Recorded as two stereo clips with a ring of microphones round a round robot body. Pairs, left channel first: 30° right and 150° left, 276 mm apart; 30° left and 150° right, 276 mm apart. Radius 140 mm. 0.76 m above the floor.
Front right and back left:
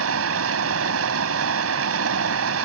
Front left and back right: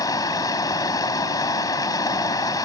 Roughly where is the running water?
Left.